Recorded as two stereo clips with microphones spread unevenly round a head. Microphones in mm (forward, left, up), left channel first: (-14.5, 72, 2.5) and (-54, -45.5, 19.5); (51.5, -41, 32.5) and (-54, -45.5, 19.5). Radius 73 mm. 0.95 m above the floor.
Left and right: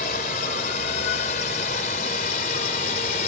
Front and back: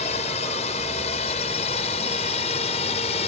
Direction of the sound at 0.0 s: 40° left.